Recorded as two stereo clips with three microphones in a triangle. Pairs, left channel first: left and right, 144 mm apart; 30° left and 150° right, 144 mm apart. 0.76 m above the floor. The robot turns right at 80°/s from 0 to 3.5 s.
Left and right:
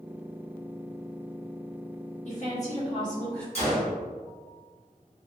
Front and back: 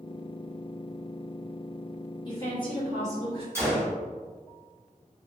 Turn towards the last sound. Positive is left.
turn(degrees=135)